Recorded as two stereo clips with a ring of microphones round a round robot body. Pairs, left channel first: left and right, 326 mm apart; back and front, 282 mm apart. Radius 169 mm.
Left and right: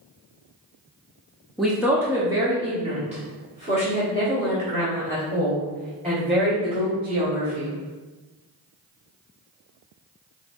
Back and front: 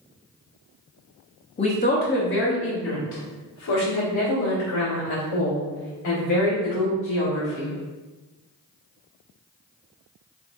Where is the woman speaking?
Straight behind, 0.8 m; by 7.7 s 150° right, 3.5 m.